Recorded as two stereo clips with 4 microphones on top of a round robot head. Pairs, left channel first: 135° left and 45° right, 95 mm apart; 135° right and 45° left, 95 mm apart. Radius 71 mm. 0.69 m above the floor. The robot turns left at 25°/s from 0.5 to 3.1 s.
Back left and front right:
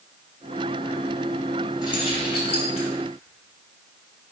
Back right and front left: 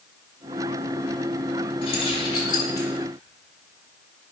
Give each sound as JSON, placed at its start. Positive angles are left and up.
{"t": 1.8, "sound": "keys jangling", "azimuth_deg": -170, "distance_m": 2.0}